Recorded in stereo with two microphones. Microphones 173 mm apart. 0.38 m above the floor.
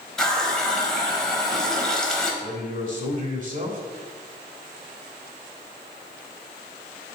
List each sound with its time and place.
0.2 s a running tap: 5° left (ahead or behind), 1.3 m
2.4 s a man speaking: 45° right (ahead or behind), 1.5 m